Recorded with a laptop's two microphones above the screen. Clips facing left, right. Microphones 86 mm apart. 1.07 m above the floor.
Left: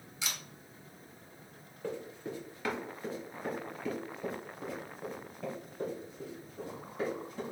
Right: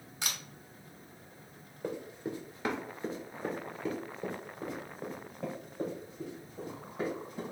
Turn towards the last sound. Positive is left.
turn(degrees=-20)  # may be behind; listen again after turning